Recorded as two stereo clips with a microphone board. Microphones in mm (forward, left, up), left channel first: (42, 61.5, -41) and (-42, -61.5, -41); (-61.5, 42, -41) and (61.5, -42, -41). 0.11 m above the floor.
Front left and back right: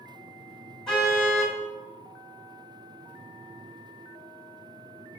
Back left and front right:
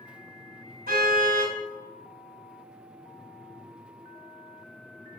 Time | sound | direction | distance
0.9 | a car horn | 30° right | 6.5 m